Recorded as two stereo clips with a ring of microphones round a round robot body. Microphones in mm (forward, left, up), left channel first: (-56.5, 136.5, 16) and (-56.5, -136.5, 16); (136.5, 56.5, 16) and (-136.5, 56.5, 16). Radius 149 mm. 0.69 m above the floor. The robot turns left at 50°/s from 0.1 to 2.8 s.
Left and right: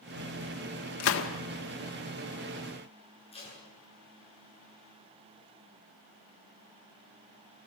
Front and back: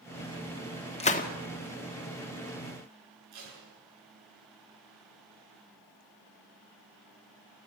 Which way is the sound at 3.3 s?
160° left.